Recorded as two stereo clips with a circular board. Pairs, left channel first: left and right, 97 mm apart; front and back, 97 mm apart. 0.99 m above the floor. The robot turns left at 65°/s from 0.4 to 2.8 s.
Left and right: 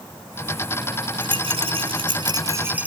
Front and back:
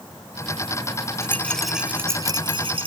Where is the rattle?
60° right; by 2.9 s 165° right.